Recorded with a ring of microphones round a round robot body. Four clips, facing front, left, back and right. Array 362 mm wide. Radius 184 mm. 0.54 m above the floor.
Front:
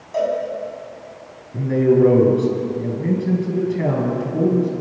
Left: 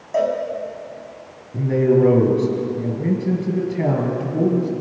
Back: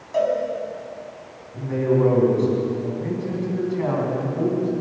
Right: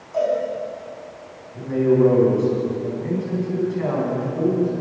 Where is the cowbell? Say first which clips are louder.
Left 1 dB, even; 100° left, 5 m.